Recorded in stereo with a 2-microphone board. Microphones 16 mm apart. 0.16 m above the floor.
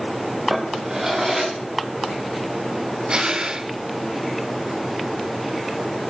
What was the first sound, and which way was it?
A drawer, 45° right (ahead or behind).